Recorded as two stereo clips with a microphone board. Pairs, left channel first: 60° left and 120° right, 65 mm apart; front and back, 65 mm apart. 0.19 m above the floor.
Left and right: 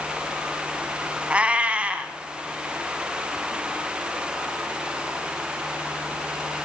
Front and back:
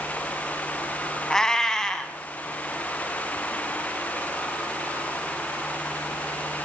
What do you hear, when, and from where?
1.3 s a cat meowing: 70° right, 0.8 m